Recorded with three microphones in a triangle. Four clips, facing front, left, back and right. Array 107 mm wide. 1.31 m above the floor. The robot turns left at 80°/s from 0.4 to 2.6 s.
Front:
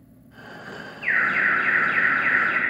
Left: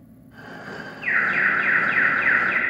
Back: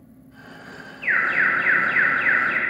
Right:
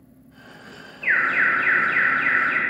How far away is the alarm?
About 1.8 m.